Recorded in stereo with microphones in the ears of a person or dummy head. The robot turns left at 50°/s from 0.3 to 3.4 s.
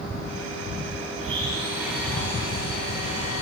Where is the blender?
135° right, 8 m; by 3.4 s 110° left, 8 m.